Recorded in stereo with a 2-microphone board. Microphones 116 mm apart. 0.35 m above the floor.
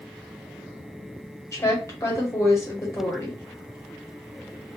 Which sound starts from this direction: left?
A woman speaking, at 1.5 s.